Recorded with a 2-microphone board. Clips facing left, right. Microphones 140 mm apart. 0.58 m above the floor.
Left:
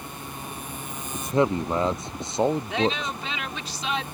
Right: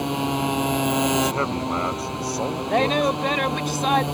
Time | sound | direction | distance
0.0 | a motorcycle | 80° right | ?
1.1 | a man speaking | 20° left (ahead or behind) | ?
2.7 | a woman speaking | 45° right (ahead or behind) | ?